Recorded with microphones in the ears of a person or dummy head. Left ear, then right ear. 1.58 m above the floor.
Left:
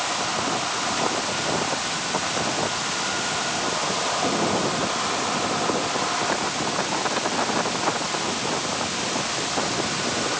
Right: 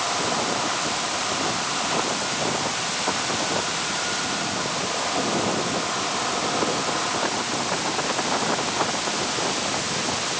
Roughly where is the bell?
No bell in this recording.